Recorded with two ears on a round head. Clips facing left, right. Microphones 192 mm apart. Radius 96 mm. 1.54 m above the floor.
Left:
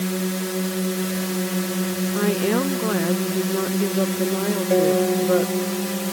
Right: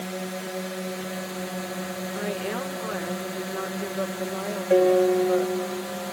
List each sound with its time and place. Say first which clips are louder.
0.0 s a drone: left 7 dB; 55° left (ahead or behind)
2.1 s a woman speaking: left 10 dB; 60° left (ahead or behind)
4.7 s a piano: right 1 dB; 5° right (ahead or behind)